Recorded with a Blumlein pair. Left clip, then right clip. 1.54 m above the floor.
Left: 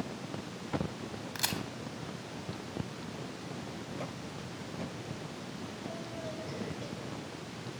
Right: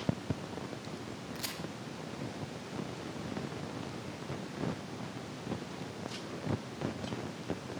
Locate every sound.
1.4 s a crack: 70° left, 1.0 m